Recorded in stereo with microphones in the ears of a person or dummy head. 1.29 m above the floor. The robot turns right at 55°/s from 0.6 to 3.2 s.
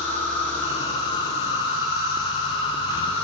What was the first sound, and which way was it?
An insect, 20° left.